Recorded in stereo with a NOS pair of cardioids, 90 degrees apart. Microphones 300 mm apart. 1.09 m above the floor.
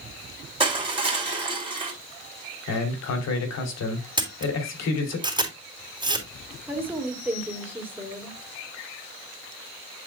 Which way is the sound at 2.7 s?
60° left.